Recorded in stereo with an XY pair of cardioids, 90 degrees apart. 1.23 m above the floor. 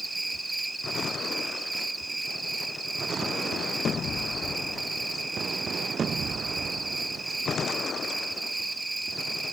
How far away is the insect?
About 1.1 m.